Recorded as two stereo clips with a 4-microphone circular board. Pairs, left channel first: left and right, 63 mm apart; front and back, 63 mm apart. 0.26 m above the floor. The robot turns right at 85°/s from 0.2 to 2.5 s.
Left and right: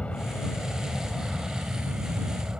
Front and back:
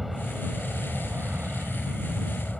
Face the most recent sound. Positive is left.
turn(degrees=-65)